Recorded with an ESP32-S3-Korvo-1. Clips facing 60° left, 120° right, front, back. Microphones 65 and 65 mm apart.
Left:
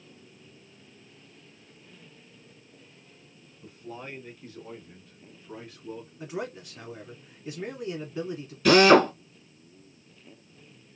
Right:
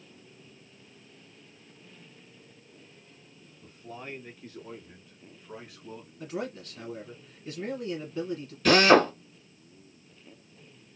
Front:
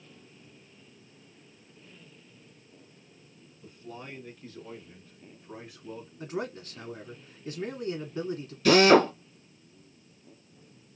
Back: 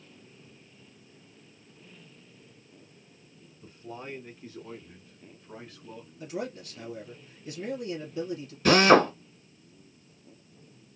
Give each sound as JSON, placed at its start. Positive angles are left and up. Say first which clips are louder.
{"t": 3.6, "sound": "a man speaking", "louder": "left 2 dB, back 2 dB", "azimuth_deg": 145, "distance_m": 1.8}
{"t": 6.2, "sound": "a man speaking", "louder": "right 1 dB, even", "azimuth_deg": -10, "distance_m": 1.5}
{"t": 8.7, "sound": "a drill", "louder": "left 2 dB, even", "azimuth_deg": 145, "distance_m": 2.0}